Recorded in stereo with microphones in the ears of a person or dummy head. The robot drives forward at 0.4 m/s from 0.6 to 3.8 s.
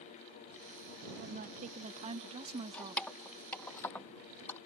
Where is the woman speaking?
45° right (ahead or behind); by 3.0 s 25° right (ahead or behind).